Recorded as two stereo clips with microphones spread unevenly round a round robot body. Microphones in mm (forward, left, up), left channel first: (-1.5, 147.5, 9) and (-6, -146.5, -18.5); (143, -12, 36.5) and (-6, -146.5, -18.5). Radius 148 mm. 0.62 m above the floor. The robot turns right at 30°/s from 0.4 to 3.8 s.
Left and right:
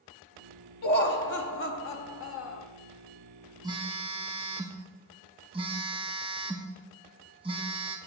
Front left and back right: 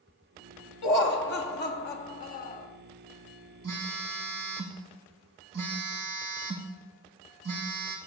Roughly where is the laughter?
Ahead left.